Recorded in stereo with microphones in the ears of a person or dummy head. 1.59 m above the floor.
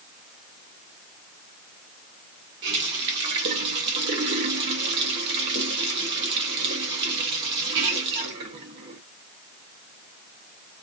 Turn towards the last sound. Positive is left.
turn(degrees=-30)  # may be behind; listen again after turning